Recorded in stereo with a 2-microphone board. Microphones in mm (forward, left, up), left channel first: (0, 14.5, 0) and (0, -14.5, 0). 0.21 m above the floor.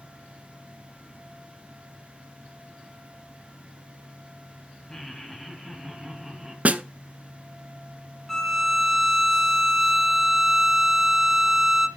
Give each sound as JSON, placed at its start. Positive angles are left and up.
{"t": 4.9, "sound": "laughter", "side_deg": 20, "distance_m": 1.4}
{"t": 6.7, "sound": "a snare drum", "side_deg": -55, "distance_m": 0.5}
{"t": 8.3, "sound": "a violin", "side_deg": 5, "distance_m": 1.3}